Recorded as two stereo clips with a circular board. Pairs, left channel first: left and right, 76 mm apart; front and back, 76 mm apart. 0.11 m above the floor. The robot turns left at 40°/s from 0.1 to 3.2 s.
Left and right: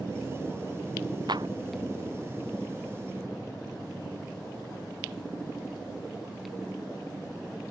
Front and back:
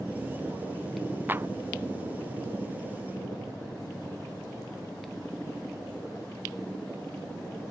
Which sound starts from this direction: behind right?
A clap, at 1.3 s.